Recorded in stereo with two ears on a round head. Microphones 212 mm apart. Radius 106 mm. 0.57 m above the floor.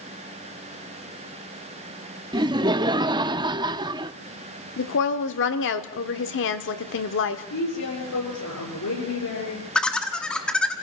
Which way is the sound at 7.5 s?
80° left.